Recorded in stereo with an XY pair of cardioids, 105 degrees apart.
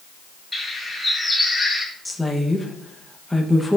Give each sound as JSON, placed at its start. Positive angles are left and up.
{"t": 0.5, "sound": "a bird", "azimuth_deg": 10, "distance_m": 3.0}
{"t": 2.0, "sound": "a woman speaking", "azimuth_deg": 5, "distance_m": 1.4}